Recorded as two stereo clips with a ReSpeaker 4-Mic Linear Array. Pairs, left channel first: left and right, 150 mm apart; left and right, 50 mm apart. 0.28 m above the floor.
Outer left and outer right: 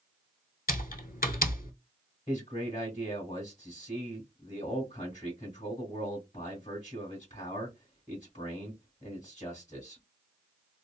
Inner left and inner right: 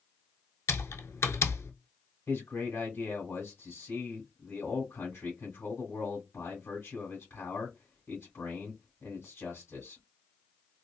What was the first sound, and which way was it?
Typing on a keyboard, 80° left.